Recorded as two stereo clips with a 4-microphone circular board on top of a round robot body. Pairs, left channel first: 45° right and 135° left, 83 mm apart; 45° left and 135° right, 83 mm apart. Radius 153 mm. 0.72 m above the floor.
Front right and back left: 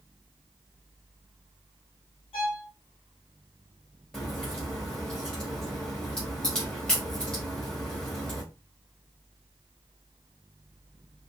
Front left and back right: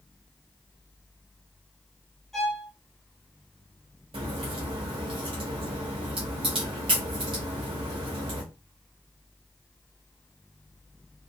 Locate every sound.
2.3 s a violin: 45° right, 0.7 m
4.1 s a crack: 125° right, 0.6 m